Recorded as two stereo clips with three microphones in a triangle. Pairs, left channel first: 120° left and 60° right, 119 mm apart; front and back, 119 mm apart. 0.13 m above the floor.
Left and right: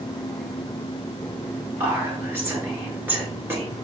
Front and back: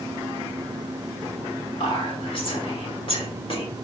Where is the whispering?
5° left, 1.7 m.